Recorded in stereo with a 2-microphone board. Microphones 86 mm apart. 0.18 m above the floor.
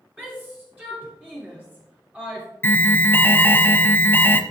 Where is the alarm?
25° left (ahead or behind), 0.7 m.